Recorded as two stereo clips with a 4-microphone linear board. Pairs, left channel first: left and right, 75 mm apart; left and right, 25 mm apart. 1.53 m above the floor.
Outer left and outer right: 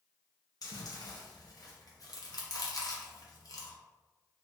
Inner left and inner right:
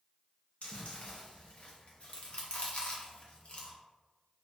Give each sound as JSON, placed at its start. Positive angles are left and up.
{"t": 0.6, "sound": "chewing", "side_deg": 55, "distance_m": 0.7}